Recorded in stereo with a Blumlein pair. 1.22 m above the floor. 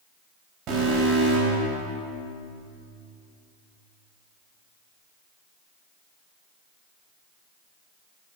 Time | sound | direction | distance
0.7 | an alarm | 30° right | 5 m